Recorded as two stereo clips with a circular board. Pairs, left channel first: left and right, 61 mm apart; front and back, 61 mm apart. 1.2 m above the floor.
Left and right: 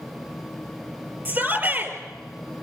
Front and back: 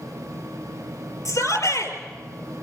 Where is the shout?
35° right, 5 m.